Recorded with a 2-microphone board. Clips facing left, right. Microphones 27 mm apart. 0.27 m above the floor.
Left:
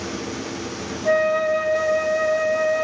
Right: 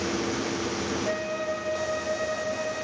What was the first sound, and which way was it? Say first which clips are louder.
A flute: left 10 dB; 45° left (ahead or behind).